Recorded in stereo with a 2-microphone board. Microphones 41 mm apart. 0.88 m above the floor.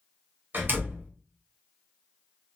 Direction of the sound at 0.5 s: 50° right (ahead or behind).